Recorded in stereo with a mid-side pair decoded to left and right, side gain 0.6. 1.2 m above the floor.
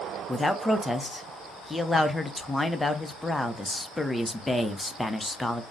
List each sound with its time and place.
0.3 s a man speaking: 5° left, 0.7 m